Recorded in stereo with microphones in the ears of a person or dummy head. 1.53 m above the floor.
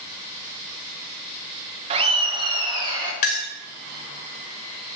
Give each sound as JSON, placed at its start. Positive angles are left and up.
{"t": 1.9, "sound": "laughter", "side_deg": -35, "distance_m": 1.2}
{"t": 3.2, "sound": "a clink", "side_deg": 40, "distance_m": 0.6}